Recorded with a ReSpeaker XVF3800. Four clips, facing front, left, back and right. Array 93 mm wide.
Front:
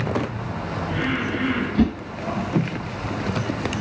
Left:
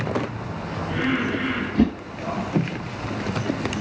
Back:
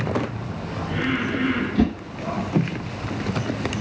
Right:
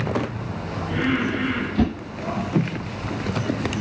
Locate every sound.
1.8 s a whoosh: 5° right, 2.0 m